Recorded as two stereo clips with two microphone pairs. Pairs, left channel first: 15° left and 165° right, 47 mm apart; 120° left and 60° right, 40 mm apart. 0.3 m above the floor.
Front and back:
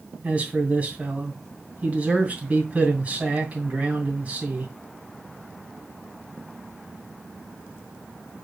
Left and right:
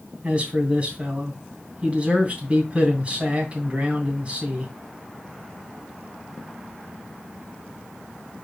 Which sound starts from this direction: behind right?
A man speaking, at 0.2 s.